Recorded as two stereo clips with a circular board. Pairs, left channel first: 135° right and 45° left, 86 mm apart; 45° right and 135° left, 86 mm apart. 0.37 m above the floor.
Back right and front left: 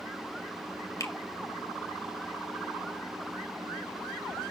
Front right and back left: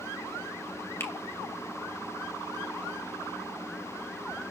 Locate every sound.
1.0 s a finger snap: 100° right, 1.8 m